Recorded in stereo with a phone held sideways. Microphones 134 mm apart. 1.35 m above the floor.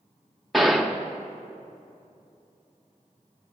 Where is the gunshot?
Centre (ahead or behind), 0.9 m.